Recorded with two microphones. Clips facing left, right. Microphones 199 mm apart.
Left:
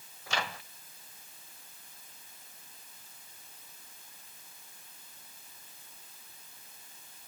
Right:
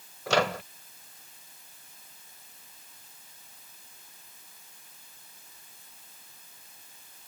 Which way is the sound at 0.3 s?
75° right (ahead or behind).